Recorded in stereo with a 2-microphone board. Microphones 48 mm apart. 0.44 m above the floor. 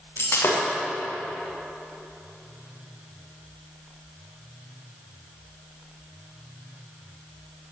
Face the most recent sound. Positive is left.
turn(degrees=65)  # may be behind; listen again after turning